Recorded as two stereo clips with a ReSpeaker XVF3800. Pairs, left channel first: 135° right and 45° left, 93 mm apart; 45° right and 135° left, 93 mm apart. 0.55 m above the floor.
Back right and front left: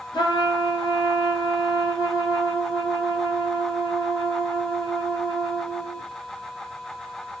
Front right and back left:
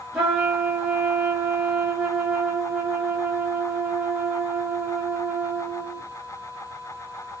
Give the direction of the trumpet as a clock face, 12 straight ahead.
5 o'clock.